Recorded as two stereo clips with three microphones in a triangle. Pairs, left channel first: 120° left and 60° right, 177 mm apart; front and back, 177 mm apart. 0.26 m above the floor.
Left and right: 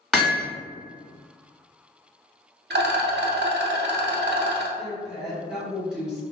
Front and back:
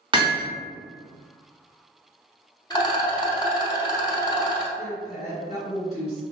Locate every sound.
0.1 s hammering: 155° right, 0.9 m
2.7 s a rattle: 60° right, 0.5 m
4.8 s a woman speaking: 25° left, 1.7 m